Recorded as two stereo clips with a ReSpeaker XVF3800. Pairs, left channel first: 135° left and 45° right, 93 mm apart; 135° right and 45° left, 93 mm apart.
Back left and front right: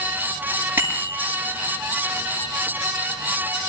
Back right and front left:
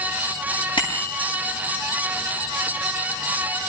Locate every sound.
0.8 s a bicycle bell: 110° right, 9.5 m